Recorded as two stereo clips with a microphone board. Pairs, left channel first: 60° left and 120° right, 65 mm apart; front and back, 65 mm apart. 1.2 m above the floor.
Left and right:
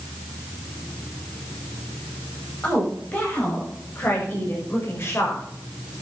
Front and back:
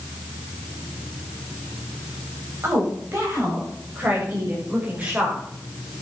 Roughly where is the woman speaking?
Behind left.